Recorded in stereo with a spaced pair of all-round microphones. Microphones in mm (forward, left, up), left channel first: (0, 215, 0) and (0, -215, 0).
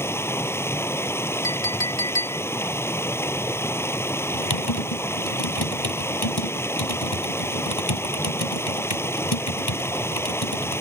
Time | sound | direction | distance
0.0 | running water | 5° left (ahead or behind) | ?
1.4 | a clink | 65° left (ahead or behind) | ?
4.3 | typing on a keyboard | 60° left (ahead or behind) | ?